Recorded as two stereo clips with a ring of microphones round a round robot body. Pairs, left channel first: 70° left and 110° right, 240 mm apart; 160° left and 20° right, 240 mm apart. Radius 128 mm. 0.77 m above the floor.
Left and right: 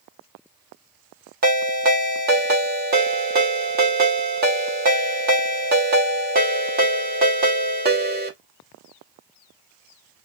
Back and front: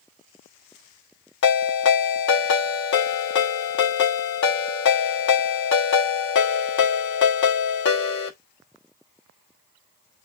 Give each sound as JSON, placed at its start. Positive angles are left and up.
{"t": 1.4, "sound": "a ringtone", "azimuth_deg": -165, "distance_m": 1.1}